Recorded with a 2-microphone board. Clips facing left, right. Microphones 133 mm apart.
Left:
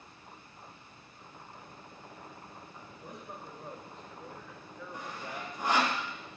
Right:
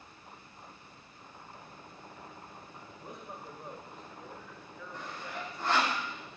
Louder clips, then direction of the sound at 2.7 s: Right 1 dB; 30° right (ahead or behind).